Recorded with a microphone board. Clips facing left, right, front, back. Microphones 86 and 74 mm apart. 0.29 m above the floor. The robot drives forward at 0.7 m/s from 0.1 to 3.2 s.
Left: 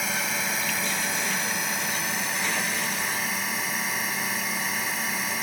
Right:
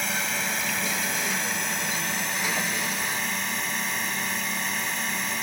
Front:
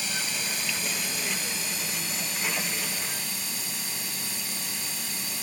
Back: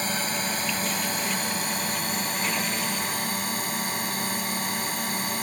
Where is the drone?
175° left.